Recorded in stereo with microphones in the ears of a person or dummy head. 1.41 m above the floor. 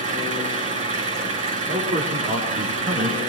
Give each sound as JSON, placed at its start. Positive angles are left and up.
{"t": 0.0, "sound": "an engine running", "side_deg": -40, "distance_m": 1.7}
{"t": 1.7, "sound": "a man speaking", "side_deg": -45, "distance_m": 5.0}